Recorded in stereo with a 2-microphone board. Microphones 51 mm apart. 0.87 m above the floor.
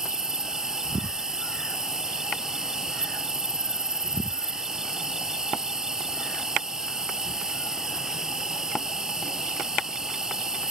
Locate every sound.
0.0 s an insect: 15° right (ahead or behind)